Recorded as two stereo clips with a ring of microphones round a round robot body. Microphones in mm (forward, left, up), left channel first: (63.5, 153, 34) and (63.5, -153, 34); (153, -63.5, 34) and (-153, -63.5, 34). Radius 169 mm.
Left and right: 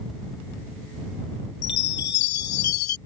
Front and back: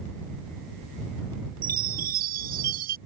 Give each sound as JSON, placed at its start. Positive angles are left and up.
{"t": 1.6, "sound": "a chime", "azimuth_deg": 115}